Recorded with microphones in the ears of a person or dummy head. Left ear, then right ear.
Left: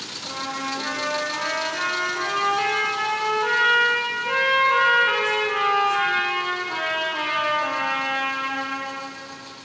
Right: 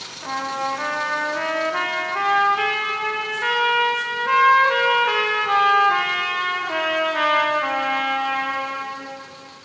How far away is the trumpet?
About 0.9 m.